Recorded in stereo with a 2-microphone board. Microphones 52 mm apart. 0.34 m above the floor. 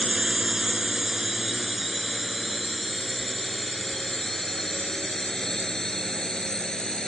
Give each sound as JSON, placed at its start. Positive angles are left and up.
{"t": 0.0, "sound": "a drone", "side_deg": -10}